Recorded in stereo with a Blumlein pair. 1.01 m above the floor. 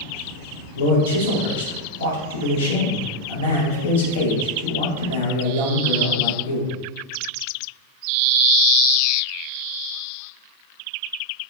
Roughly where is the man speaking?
Ahead left.